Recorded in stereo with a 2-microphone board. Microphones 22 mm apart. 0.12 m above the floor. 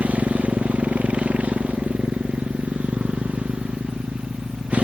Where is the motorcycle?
80° right; by 4.8 s 65° right (ahead or behind).